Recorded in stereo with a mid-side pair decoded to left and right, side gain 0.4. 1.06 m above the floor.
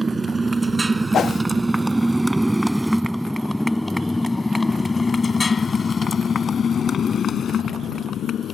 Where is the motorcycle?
25° right; by 8.6 s 70° left.